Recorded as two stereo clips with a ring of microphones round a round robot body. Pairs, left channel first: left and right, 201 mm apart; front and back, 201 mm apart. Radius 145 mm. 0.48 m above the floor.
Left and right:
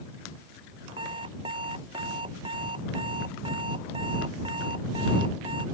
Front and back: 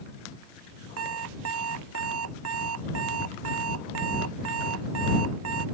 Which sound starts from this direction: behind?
An alarm clock, at 1.0 s.